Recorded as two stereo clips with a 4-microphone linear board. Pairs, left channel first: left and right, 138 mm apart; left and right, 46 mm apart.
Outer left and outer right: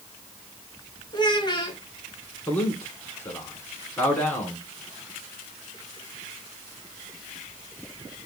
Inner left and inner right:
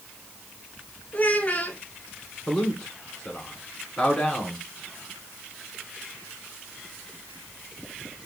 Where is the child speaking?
35° left (ahead or behind), 0.9 m.